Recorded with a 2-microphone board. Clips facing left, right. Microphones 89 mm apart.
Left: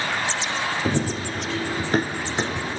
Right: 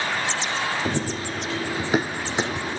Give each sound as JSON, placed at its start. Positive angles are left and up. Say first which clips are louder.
{"t": 0.8, "sound": "running footsteps", "louder": "left 2 dB", "side_deg": 5, "distance_m": 0.9}